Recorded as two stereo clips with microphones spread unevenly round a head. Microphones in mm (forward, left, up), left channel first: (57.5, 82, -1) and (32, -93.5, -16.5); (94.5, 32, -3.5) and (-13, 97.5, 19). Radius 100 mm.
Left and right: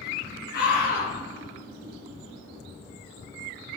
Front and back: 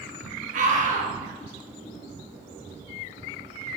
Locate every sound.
0.5 s a scream: 130° left, 2.5 m